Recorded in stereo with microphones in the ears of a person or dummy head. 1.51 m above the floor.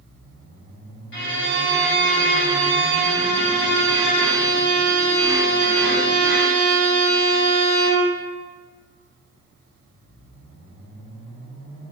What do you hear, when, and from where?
1.1 s a violin: 65° left (ahead or behind), 1.0 m